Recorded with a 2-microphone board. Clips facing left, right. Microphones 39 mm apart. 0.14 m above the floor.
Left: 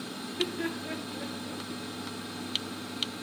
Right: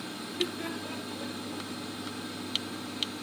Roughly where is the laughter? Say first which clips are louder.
Left 2 dB; centre.